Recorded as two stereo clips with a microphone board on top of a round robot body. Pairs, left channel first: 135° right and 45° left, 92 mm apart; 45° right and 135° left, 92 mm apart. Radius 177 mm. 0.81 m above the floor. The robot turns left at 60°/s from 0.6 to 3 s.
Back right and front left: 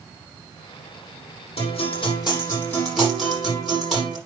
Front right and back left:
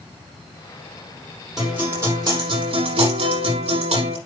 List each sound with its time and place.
1.6 s a guitar: 140° right, 8.5 m; by 4.2 s 135° left, 8.5 m